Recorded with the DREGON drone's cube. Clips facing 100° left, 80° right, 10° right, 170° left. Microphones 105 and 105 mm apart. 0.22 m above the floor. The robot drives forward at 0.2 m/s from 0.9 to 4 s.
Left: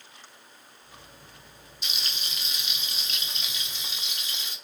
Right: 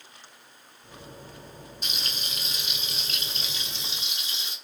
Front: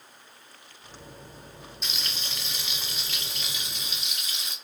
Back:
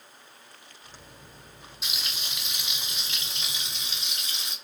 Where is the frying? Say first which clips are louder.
Even, even; 110° right, 0.9 m; by 4.5 s 130° right, 1.1 m.